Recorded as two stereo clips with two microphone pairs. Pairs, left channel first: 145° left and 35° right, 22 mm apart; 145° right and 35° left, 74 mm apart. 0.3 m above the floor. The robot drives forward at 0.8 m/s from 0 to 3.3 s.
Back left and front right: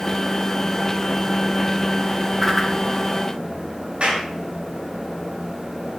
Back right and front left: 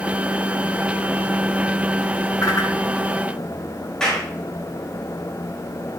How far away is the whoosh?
About 3 m.